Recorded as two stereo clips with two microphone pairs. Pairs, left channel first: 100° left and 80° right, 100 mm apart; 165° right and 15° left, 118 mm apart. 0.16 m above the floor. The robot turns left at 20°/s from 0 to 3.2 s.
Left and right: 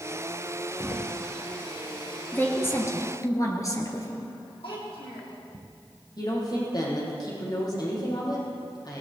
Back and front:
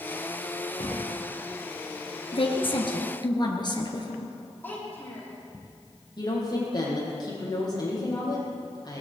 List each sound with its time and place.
0.8 s a thud: 145° right, 8 m; by 1.1 s 155° right, 8 m
2.3 s a woman speaking: 165° left, 2.5 m; by 4.3 s 150° left, 2.5 m
4.6 s a child speaking: 125° left, 6 m
6.2 s a woman speaking: 145° left, 6.5 m